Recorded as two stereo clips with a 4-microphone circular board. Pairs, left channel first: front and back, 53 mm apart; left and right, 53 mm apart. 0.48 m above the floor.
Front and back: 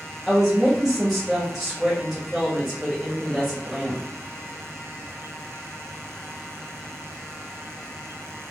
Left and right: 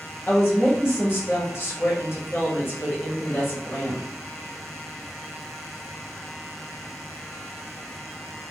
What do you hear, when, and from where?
0.3 s a woman speaking: 100° left, 1.6 m